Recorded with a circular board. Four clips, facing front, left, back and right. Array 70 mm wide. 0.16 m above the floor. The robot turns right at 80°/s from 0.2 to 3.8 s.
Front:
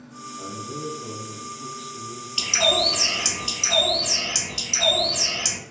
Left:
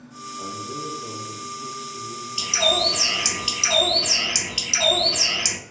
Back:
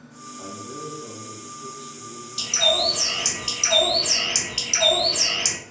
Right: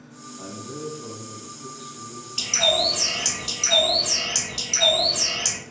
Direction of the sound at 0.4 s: 105° right.